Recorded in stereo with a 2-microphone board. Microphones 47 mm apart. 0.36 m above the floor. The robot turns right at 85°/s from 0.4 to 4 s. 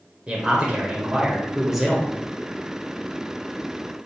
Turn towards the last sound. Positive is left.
turn(degrees=180)